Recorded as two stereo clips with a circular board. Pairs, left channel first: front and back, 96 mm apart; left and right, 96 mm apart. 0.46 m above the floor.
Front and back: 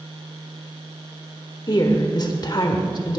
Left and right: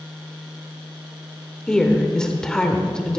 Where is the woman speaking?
10° left, 1.2 m.